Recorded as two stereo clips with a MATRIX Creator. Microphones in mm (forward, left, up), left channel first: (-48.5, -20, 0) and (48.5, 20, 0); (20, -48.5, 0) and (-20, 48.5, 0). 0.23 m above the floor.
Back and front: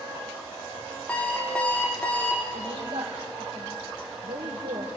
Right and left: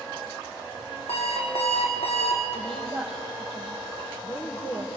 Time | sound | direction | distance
1.1 | an alarm clock | 80° right | 4.5 m
2.5 | a woman speaking | 15° left | 5 m